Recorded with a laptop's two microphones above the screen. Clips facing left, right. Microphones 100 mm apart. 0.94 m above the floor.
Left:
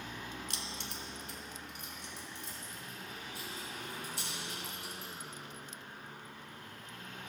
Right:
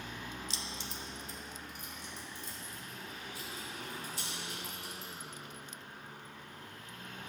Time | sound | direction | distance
0.5 | keys jangling | 55° left (ahead or behind) | 0.6 m